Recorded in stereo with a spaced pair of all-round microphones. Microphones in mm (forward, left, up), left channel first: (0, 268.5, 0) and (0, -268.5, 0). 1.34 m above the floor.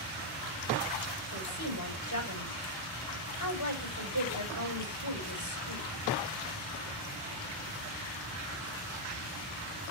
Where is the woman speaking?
40° left (ahead or behind), 7 m.